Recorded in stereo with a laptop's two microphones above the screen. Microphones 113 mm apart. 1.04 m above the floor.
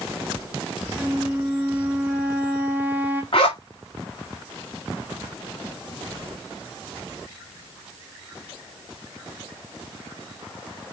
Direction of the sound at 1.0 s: 15° right (ahead or behind).